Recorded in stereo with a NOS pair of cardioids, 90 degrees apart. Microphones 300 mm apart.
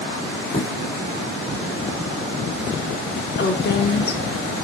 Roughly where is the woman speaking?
Ahead left.